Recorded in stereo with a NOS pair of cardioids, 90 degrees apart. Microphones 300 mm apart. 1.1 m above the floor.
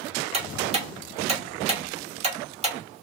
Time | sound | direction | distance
0.3 | ticking | 20° right | 2.5 m